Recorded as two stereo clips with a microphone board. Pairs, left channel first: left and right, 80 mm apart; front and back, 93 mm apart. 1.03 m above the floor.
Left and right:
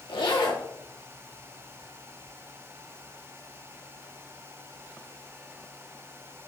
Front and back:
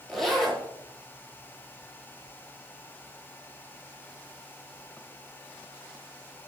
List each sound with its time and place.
0.1 s a zipper: 90° left, 1.7 m